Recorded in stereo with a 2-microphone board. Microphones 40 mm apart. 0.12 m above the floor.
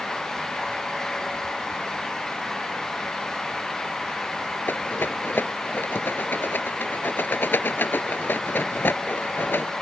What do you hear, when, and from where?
4.7 s a rattle: 55° left (ahead or behind)